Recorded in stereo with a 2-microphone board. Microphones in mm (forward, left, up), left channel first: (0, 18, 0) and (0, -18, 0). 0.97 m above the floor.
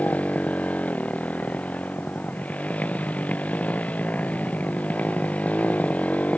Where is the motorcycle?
45° left (ahead or behind).